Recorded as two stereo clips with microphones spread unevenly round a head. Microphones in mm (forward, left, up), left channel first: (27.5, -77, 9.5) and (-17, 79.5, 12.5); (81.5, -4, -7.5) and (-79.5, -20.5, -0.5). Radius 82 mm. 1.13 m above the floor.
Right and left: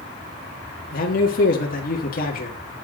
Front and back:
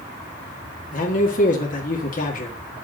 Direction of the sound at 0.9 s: 35° right.